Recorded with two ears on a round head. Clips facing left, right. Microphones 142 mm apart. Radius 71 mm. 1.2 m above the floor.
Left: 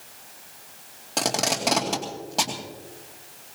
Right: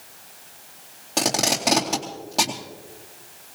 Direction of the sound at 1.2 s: 5° right (ahead or behind).